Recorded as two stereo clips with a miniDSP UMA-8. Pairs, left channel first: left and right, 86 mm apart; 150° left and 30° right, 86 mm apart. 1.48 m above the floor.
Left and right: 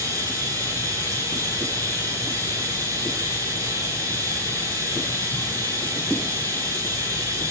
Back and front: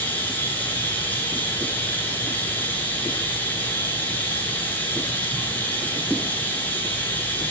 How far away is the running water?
About 9.5 m.